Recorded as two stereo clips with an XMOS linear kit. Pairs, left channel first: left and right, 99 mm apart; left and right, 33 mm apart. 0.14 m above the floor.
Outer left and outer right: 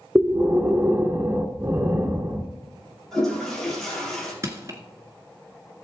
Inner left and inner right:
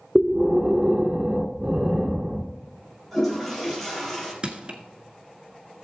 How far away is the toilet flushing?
About 4 m.